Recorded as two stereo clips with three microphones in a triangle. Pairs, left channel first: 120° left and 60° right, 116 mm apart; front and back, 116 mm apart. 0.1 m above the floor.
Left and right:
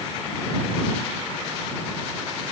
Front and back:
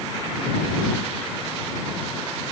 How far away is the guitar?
No guitar in this recording.